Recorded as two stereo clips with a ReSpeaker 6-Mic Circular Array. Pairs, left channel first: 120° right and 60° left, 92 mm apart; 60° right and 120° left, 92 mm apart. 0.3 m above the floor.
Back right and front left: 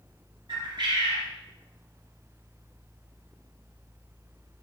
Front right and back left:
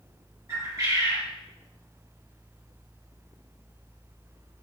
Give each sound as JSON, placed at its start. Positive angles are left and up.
{"t": 0.5, "sound": "a bird", "azimuth_deg": 70, "distance_m": 1.1}